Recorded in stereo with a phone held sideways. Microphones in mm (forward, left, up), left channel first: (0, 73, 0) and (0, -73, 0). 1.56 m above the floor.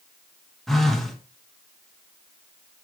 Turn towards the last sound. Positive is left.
turn(degrees=0)  # may be behind; listen again after turning